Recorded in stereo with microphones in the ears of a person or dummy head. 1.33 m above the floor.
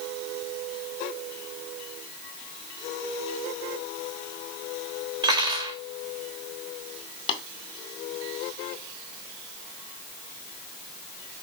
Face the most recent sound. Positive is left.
turn(degrees=35)  # may be behind; listen again after turning